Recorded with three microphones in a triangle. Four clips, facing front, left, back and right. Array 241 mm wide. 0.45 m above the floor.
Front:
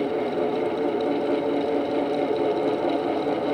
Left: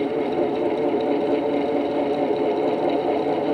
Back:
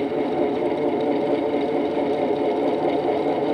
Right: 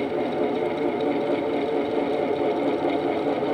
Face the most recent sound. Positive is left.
No sound to turn to.